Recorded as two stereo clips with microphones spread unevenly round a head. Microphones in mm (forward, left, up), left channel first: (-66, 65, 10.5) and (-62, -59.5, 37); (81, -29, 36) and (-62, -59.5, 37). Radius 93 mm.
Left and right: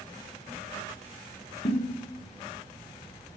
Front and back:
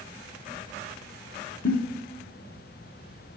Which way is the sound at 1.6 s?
45° left.